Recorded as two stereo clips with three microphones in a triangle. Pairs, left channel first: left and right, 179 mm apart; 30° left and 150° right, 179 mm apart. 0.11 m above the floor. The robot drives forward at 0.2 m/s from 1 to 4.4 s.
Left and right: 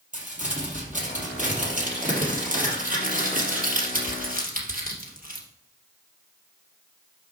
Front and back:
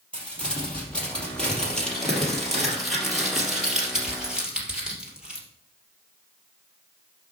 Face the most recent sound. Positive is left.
turn(degrees=-65)